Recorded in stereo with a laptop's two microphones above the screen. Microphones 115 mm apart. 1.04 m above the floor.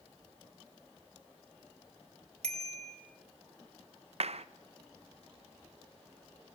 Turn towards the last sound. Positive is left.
turn(degrees=-65)  # may be behind; listen again after turning